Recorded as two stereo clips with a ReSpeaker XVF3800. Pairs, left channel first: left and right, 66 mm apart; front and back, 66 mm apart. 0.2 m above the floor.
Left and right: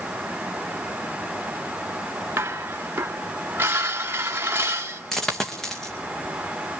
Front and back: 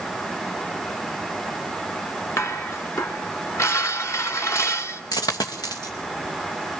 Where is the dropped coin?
5° left, 2.5 m.